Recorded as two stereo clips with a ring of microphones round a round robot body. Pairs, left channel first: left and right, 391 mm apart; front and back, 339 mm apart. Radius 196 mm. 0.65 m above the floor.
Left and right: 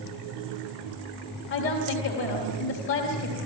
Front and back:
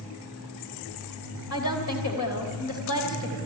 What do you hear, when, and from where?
1.5 s a woman speaking: 30° left, 3 m